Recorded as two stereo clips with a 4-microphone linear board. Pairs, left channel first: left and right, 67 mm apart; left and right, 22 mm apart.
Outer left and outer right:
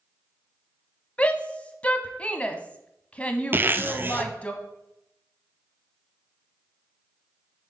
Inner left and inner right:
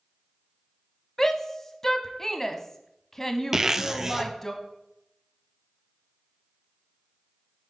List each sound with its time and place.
1.2 s a shout: 20° left (ahead or behind), 1.0 m
3.5 s a zipper: 30° right (ahead or behind), 0.6 m